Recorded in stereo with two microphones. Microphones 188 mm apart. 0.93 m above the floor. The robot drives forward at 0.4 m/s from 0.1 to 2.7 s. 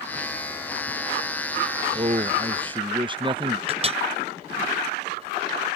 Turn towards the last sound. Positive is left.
turn(degrees=-30)  # may be behind; listen again after turning